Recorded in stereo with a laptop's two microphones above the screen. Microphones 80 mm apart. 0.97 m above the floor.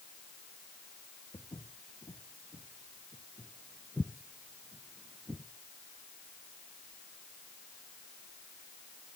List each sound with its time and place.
1.3 s footsteps: 60° left (ahead or behind), 3 m; by 5.5 s 40° right (ahead or behind), 1.1 m